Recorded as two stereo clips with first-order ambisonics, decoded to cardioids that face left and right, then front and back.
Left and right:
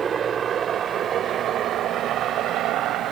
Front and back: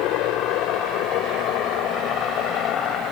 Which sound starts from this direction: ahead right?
A helicopter, at 0.0 s.